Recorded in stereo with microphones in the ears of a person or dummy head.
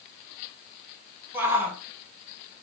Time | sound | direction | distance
1.3 | a shout | 10° right (ahead or behind) | 2.5 m